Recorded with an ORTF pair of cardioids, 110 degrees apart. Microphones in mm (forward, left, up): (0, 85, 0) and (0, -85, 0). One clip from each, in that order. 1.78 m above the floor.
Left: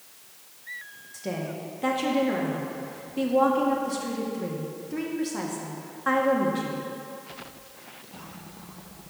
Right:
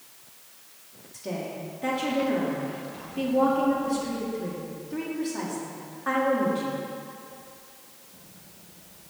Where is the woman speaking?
20° left, 1.9 m.